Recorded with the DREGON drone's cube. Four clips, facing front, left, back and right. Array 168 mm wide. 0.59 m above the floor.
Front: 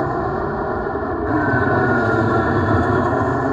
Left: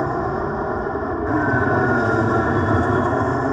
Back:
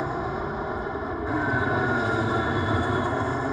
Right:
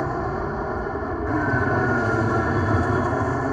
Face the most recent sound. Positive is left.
turn(degrees=30)